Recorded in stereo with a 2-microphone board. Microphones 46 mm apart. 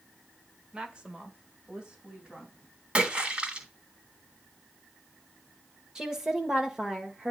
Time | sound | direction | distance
0.7 | a woman speaking | 20° right (ahead or behind) | 1.2 m
3.0 | a splash | 25° right (ahead or behind) | 2 m
6.0 | a woman speaking | 15° right (ahead or behind) | 1.3 m